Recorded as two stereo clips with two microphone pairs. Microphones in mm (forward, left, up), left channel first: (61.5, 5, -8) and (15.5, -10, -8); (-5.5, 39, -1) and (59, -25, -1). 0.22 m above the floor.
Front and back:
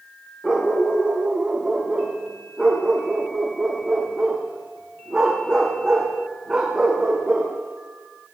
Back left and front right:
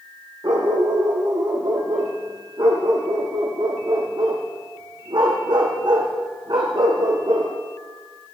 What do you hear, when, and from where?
0.4 s a dog barking: 85° right, 5.5 m